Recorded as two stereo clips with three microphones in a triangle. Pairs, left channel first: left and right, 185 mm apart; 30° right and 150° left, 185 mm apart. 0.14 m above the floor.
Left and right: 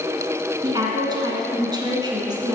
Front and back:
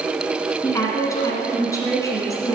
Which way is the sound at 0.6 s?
70° right.